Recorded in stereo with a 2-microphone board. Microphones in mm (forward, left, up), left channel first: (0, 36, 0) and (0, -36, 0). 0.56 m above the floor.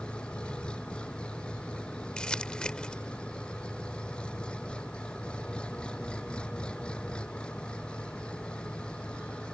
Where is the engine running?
15° left (ahead or behind).